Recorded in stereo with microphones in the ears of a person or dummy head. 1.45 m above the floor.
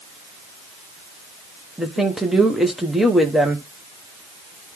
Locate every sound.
1.8 s a woman speaking: centre (ahead or behind), 1.0 m